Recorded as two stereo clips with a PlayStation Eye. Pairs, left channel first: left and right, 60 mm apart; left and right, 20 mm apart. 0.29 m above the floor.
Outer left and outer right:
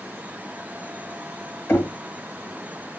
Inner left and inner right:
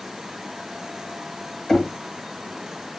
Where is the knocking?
35° left (ahead or behind), 1.2 m.